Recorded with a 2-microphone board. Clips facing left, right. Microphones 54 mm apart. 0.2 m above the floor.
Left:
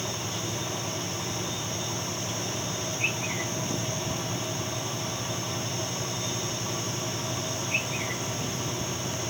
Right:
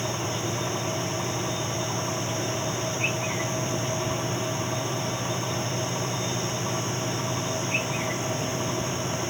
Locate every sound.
Only background noise.